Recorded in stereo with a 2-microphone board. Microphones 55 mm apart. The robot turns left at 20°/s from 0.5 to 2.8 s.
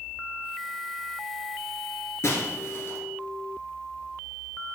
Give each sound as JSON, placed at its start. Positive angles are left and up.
{"t": 2.2, "sound": "breaking glass", "side_deg": 60, "distance_m": 2.0}